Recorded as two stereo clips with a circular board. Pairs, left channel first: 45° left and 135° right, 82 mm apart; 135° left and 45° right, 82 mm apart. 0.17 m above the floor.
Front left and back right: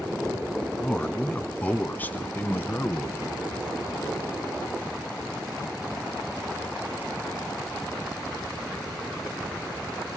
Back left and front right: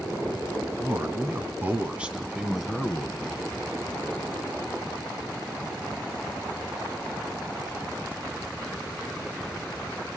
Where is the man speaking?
25° right, 1.6 m; by 3.4 s 65° left, 1.6 m.